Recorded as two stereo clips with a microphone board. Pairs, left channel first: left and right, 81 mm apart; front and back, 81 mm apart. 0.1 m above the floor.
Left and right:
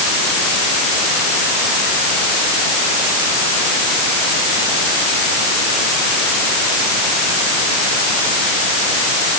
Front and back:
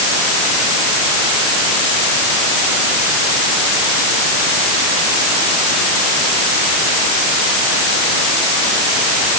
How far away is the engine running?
I don't hear an engine running.